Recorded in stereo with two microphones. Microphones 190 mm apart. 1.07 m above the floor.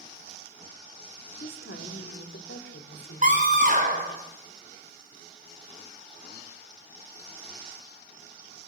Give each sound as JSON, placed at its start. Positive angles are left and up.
{"t": 1.4, "sound": "a woman speaking", "side_deg": 85, "distance_m": 2.5}
{"t": 3.2, "sound": "a scream", "side_deg": -40, "distance_m": 5.0}